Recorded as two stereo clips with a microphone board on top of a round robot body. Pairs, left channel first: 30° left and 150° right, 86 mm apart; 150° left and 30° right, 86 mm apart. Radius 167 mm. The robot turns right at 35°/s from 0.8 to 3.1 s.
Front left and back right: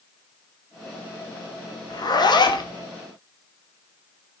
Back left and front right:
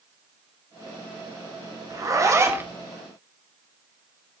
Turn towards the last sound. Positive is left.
turn(degrees=45)